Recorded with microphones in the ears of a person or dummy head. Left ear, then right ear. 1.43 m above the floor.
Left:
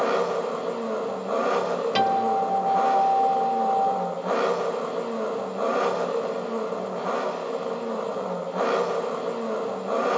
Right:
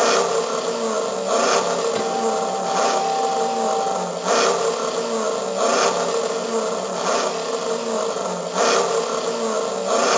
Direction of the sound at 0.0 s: 80° right.